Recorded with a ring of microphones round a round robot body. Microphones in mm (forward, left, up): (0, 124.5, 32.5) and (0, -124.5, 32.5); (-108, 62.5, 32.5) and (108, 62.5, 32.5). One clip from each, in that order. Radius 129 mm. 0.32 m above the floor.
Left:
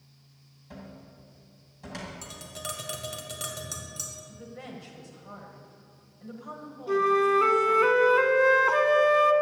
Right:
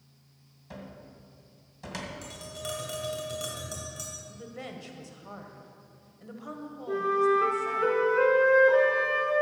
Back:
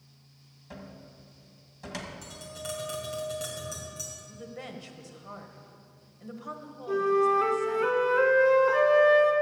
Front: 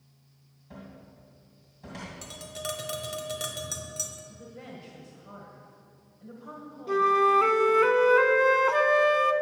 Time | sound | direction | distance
0.7 | a cupboard door | 160° right | 2.0 m
2.2 | tapping | 30° left | 1.9 m
4.3 | a woman speaking | 165° right | 1.6 m
6.9 | a flute | 55° left | 0.8 m